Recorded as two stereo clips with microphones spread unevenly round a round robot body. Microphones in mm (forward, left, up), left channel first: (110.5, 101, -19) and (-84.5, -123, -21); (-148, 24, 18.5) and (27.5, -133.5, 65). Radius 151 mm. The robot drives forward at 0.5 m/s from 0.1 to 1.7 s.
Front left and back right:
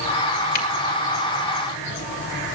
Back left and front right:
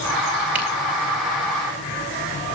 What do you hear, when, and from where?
0.6 s a camera shutter: 45° left, 4 m